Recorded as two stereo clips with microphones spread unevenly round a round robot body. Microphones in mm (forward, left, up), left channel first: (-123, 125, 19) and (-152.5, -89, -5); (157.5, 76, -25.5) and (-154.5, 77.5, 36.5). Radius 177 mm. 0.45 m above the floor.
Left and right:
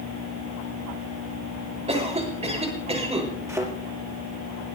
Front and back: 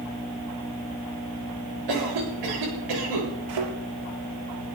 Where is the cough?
160° right, 8 m.